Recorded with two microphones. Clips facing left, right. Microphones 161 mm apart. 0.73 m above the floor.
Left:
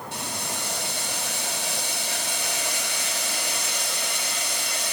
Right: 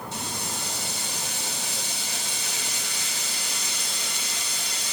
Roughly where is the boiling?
Left.